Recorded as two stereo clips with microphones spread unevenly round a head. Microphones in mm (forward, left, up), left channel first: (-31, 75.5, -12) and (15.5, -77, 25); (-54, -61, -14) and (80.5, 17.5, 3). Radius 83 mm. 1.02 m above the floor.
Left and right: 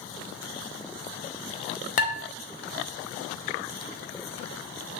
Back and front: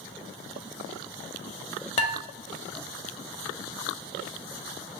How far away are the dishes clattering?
About 0.6 m.